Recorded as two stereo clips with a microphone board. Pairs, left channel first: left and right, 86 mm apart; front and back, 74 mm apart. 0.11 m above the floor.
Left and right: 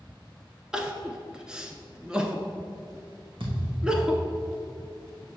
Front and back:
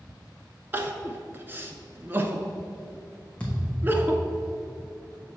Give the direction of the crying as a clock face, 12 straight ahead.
5 o'clock.